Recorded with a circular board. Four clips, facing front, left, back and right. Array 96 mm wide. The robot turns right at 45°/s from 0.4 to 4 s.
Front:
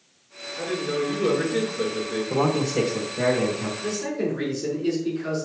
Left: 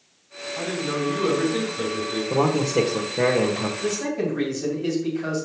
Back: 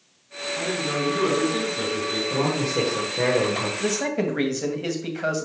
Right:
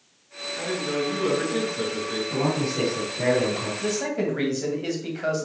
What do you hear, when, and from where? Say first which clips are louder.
0.6 s a man speaking: even, front 1 dB; 120° left, 4 m; by 2.2 s 165° right, 4 m
2.3 s a man speaking: left 6 dB, front 2 dB; 65° left, 1.4 m; by 3.7 s 130° left, 1.4 m
3.8 s a man speaking: right 2 dB, back 3 dB; 175° right, 2.5 m; by 5.5 s 165° right, 2.5 m